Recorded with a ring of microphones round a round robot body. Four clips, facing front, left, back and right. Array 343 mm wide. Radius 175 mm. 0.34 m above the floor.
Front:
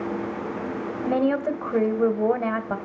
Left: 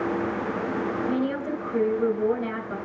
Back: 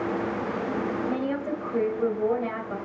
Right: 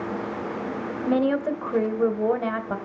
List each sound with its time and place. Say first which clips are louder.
1.1 s a woman speaking: right 4 dB, front 5 dB; 35° right, 1.8 m